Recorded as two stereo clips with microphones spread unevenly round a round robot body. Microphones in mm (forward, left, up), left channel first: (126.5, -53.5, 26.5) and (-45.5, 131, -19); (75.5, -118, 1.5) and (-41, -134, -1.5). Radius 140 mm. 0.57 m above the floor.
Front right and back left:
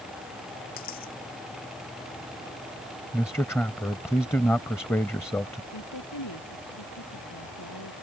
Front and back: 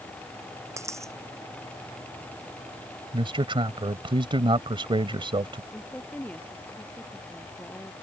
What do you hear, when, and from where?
0.8 s a dropped coin: 105° right
3.1 s a man speaking: 130° right
5.7 s a woman speaking: 70° right